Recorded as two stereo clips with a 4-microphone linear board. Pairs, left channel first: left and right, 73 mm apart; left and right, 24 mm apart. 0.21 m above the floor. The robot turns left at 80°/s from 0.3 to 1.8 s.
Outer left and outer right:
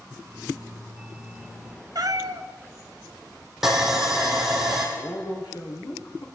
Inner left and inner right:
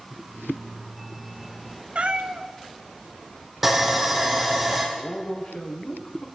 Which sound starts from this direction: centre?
Sawing, at 3.6 s.